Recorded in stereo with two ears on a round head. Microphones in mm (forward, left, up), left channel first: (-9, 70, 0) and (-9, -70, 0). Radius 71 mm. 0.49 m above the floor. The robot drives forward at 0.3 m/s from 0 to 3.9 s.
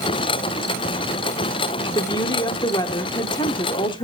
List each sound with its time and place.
1.9 s a woman speaking: 25° left (ahead or behind), 1.2 m; by 4.0 s 30° left (ahead or behind), 1.0 m